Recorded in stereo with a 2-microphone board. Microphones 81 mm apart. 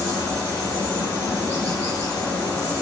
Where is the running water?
55° left (ahead or behind), 1.6 m.